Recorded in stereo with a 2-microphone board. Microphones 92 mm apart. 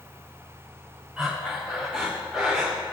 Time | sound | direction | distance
1.2 | breathing | 5° right (ahead or behind) | 3 m